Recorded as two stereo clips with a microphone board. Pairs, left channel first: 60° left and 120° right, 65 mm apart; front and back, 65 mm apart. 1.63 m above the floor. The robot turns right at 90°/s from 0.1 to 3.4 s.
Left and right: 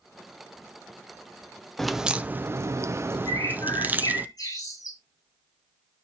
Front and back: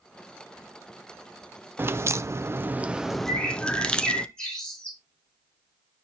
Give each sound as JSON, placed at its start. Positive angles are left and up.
{"t": 1.8, "sound": "a crack", "azimuth_deg": 140, "distance_m": 0.6}
{"t": 3.3, "sound": "a bird", "azimuth_deg": 60, "distance_m": 7.0}